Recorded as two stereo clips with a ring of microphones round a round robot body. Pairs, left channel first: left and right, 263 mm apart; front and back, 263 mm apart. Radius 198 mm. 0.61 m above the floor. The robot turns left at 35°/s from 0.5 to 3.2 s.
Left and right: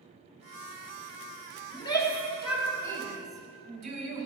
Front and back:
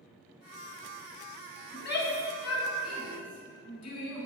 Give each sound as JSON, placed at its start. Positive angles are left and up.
{"t": 1.7, "sound": "a shout", "azimuth_deg": 20, "distance_m": 3.5}